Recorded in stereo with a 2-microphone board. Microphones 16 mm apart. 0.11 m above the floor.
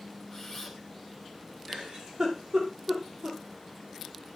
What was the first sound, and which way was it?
A camera shutter, 20° left (ahead or behind).